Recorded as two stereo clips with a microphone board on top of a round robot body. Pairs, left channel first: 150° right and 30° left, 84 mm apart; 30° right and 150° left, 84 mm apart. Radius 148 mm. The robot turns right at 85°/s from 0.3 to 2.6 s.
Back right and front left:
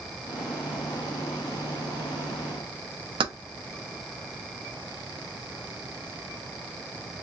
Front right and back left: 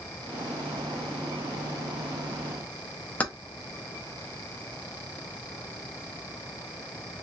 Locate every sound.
3.2 s keys jangling: 45° left, 0.5 m